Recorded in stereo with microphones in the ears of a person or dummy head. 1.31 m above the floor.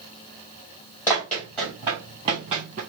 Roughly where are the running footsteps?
Centre.